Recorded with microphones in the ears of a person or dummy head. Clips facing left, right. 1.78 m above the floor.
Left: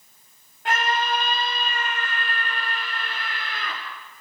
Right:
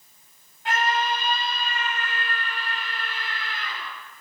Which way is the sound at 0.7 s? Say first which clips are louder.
Even; 50° left (ahead or behind).